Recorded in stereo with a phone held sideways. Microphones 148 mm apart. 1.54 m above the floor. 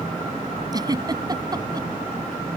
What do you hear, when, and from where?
0.7 s a giggle: 25° right (ahead or behind)